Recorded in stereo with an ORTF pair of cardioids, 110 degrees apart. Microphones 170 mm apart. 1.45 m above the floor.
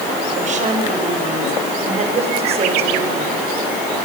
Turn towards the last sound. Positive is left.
turn(degrees=-35)